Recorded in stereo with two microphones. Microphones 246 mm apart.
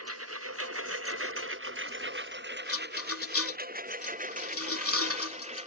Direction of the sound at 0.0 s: 80° right.